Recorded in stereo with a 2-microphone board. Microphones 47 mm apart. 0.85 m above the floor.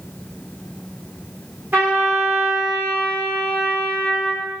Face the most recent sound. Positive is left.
turn(degrees=-50)  # may be behind; listen again after turning